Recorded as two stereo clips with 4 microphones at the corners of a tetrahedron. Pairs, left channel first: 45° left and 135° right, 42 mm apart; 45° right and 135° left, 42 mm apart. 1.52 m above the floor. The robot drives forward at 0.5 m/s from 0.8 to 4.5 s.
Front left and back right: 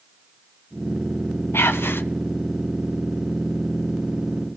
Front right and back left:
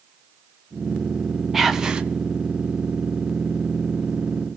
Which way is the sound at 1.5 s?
50° left.